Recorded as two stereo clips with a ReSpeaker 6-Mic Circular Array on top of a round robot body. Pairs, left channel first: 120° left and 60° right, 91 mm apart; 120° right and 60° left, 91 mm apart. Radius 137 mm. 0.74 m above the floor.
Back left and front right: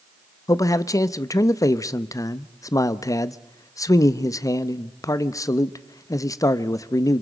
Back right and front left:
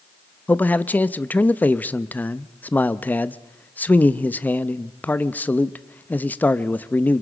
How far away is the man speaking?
About 0.7 m.